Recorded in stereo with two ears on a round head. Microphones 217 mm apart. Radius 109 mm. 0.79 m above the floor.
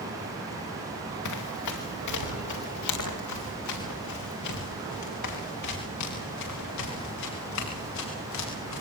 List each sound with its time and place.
1.2 s running footsteps: 85° left, 6.5 m; by 8.8 s 80° left, 14 m